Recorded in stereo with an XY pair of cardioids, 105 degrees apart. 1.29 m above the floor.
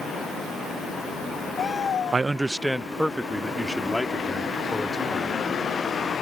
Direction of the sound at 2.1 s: 30° right.